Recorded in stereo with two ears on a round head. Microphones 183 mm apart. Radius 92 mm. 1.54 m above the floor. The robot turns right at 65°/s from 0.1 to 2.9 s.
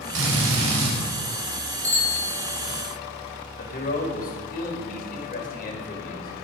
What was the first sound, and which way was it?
A drill, 110° right.